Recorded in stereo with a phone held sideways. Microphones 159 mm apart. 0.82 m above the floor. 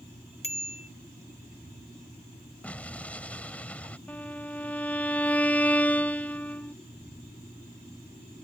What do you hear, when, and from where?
0.4 s a bicycle bell: 40° left (ahead or behind)
2.6 s an explosion: 10° left (ahead or behind)
4.1 s a violin: 10° left (ahead or behind)